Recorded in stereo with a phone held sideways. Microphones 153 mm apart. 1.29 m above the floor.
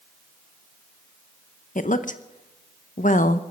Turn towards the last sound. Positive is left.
turn(degrees=60)  # may be behind; listen again after turning